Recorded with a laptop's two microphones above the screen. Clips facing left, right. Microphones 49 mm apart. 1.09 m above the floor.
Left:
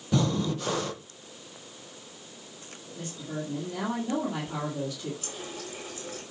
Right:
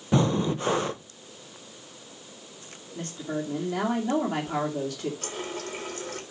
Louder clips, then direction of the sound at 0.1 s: Right 3 dB; 30° right (ahead or behind).